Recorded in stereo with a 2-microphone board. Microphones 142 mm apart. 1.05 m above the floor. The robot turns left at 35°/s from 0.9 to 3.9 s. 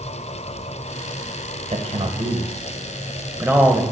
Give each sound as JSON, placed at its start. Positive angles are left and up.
{"t": 1.7, "sound": "a man speaking", "side_deg": -50, "distance_m": 0.8}